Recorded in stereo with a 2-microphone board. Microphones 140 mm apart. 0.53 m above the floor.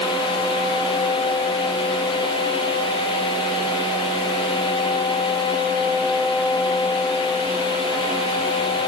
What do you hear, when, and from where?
Only background noise.